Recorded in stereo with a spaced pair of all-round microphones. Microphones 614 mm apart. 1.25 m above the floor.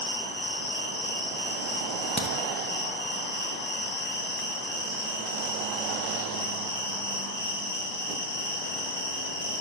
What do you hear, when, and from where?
0.0 s an insect: 55° left (ahead or behind), 1.8 m
2.2 s a crack: 20° right (ahead or behind), 0.7 m